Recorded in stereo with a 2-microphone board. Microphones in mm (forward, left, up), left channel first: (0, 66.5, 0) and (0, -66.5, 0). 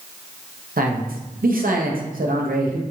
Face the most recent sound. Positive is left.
turn(degrees=-80)